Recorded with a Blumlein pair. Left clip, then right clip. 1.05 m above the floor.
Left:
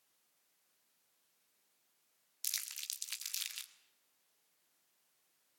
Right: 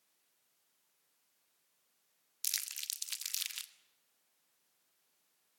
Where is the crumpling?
10° right, 1.5 m.